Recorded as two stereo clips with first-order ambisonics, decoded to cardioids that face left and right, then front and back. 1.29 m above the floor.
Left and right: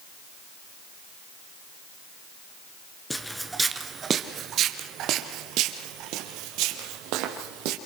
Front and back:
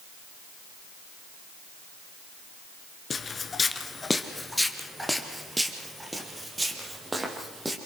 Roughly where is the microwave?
No microwave in this recording.